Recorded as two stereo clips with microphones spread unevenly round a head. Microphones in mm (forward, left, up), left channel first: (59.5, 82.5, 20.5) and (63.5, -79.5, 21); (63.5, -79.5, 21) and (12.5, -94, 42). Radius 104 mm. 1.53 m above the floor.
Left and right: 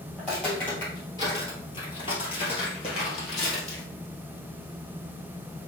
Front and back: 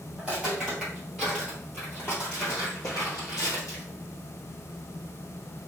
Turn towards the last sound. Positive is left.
turn(degrees=65)